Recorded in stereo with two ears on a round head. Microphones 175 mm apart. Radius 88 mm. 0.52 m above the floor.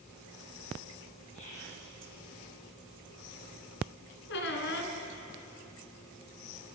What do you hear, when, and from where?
1.3 s whispering: 35° left (ahead or behind), 7 m
4.3 s a squeak: 70° left (ahead or behind), 2.5 m